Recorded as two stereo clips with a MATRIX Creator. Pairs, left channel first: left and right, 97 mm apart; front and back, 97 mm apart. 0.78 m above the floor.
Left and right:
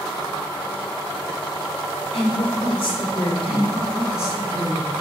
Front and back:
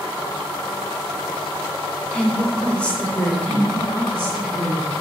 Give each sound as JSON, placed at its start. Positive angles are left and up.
{"t": 2.1, "sound": "a woman speaking", "azimuth_deg": 80, "distance_m": 1.9}
{"t": 3.5, "sound": "a woman speaking", "azimuth_deg": -170, "distance_m": 3.5}